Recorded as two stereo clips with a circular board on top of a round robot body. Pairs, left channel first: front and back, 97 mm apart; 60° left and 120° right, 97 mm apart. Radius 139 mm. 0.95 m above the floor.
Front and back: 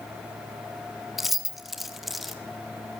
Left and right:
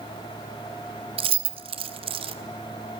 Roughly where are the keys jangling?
Right.